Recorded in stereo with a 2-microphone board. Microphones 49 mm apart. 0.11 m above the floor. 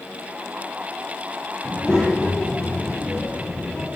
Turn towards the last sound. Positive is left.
turn(degrees=10)  # may be behind; listen again after turning